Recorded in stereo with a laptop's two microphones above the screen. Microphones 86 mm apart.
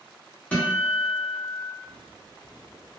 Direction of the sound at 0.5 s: 15° left (ahead or behind).